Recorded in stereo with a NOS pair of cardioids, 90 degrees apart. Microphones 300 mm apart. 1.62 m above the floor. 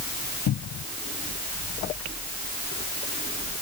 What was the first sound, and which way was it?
A cupboard door, 60° left.